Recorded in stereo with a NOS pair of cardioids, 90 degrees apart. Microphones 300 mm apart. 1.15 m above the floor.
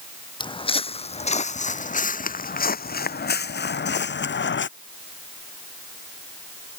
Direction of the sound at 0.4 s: 15° left.